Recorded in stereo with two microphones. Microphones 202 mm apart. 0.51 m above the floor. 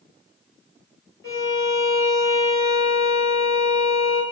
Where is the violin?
70° left (ahead or behind), 0.9 m.